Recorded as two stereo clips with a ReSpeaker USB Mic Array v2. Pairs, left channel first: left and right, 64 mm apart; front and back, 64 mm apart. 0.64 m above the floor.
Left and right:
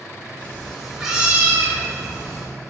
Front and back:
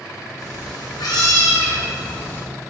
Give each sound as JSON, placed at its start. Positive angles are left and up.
{"t": 0.4, "sound": "a cat meowing", "azimuth_deg": 25, "distance_m": 0.7}